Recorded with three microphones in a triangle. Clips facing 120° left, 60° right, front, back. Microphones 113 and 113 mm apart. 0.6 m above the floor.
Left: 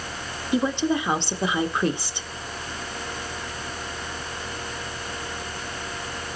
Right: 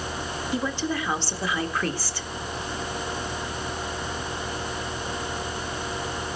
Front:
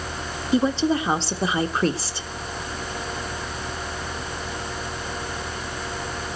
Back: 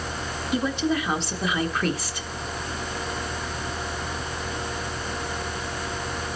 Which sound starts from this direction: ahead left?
A woman speaking, at 0.5 s.